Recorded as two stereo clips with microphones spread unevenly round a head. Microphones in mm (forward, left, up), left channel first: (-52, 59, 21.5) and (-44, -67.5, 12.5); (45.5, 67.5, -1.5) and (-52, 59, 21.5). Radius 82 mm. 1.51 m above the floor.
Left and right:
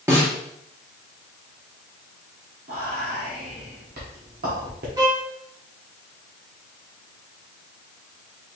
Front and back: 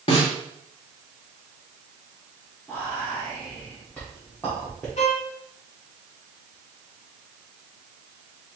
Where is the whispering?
80° right, 1.0 m.